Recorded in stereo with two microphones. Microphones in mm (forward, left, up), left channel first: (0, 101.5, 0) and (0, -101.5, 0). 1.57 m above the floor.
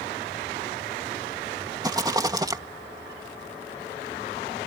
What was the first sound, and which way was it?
A rattle, 20° right (ahead or behind).